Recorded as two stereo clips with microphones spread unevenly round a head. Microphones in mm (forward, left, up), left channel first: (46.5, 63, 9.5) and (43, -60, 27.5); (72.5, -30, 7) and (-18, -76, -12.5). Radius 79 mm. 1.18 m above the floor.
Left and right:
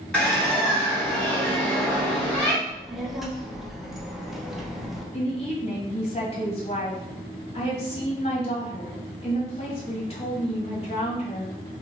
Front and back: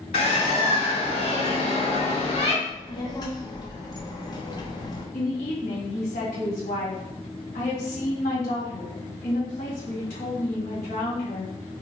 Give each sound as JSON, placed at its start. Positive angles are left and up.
{"t": 0.1, "sound": "a bird", "azimuth_deg": 5, "distance_m": 1.8}
{"t": 2.6, "sound": "a child speaking", "azimuth_deg": -5, "distance_m": 0.9}
{"t": 5.1, "sound": "a woman speaking", "azimuth_deg": 55, "distance_m": 1.6}